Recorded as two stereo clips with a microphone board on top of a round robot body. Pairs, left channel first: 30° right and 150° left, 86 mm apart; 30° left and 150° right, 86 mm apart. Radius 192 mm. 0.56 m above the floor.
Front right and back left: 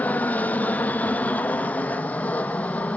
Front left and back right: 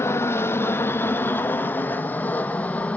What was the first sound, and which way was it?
An aircraft, 20° left.